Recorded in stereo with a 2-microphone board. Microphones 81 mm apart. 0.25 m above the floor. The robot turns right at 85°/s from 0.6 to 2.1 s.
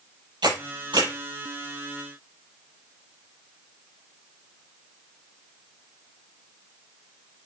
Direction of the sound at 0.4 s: 75° right (ahead or behind).